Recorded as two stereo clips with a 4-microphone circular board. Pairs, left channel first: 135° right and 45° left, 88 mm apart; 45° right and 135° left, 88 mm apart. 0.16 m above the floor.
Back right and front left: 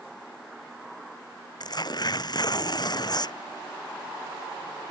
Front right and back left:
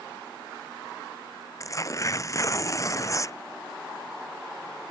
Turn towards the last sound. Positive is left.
turn(degrees=-100)